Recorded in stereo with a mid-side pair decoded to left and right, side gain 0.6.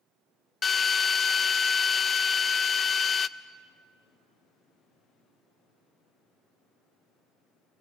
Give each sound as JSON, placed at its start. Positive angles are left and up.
{"t": 0.6, "sound": "a drill", "azimuth_deg": 35, "distance_m": 0.7}